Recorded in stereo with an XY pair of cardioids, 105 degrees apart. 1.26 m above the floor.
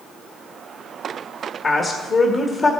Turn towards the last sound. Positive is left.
turn(degrees=40)